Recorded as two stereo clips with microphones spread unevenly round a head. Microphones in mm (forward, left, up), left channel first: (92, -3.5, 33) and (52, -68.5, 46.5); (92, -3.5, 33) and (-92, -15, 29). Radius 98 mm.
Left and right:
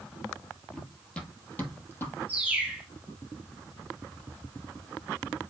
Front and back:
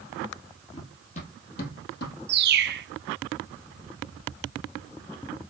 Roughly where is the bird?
Behind left.